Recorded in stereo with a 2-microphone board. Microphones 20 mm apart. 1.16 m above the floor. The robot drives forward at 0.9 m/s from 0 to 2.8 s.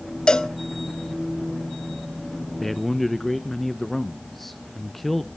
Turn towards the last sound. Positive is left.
turn(degrees=10)  # may be behind; listen again after turning